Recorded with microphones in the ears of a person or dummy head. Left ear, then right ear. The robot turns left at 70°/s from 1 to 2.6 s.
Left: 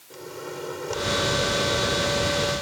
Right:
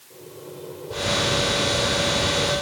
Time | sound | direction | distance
0.1 | a microwave | 115° left | ?